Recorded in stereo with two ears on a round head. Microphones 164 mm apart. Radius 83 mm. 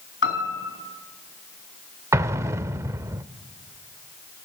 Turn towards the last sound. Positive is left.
turn(degrees=-15)  # may be behind; listen again after turning